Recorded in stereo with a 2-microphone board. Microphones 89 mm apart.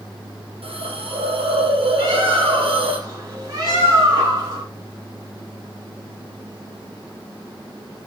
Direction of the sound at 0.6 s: 75° right (ahead or behind).